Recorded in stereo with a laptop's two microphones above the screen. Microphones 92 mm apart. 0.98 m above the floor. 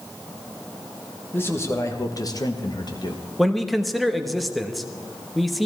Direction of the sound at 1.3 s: 25° left (ahead or behind).